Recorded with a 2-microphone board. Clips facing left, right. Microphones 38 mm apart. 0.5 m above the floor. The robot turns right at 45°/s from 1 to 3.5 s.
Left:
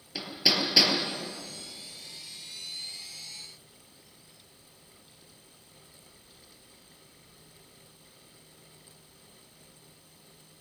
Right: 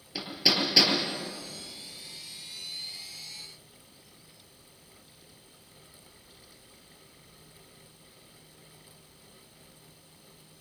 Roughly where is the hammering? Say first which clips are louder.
Even; centre.